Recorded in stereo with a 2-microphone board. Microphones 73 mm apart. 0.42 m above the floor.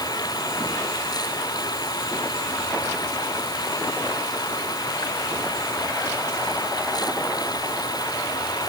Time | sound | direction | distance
0.0 | running water | 70° left (ahead or behind) | ?